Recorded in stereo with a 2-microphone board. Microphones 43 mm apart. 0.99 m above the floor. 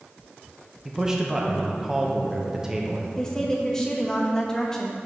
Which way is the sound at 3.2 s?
15° left (ahead or behind).